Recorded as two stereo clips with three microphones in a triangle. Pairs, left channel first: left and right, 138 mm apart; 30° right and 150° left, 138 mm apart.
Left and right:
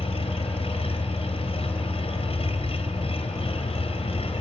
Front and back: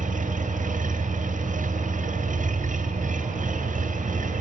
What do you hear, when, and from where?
0.0 s an engine running: 135° left, 2.5 m